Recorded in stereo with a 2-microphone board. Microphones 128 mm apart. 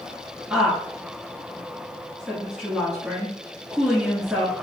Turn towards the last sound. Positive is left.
turn(degrees=-5)  # may be behind; listen again after turning